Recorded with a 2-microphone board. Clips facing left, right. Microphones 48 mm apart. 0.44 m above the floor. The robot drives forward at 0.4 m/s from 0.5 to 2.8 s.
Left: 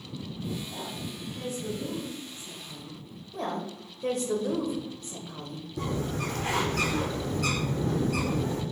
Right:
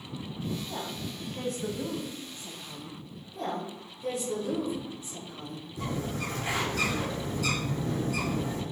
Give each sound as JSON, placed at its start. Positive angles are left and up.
{"t": 0.7, "sound": "a woman speaking", "side_deg": -50, "distance_m": 3.0}
{"t": 3.3, "sound": "a woman speaking", "side_deg": 50, "distance_m": 2.0}
{"t": 5.8, "sound": "a bird", "side_deg": 50, "distance_m": 3.0}